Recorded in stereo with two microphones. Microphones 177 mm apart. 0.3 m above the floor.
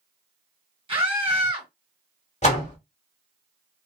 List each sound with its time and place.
0.9 s a scream: 30° right (ahead or behind), 2 m
2.4 s a door slam: 40° left (ahead or behind), 1.3 m